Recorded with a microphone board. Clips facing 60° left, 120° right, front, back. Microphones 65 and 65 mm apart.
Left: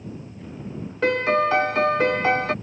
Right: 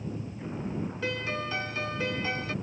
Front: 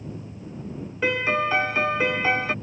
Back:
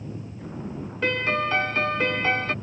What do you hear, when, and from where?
0.0 s a vehicle: 170° left; by 2.6 s straight behind
1.0 s a piano: 80° left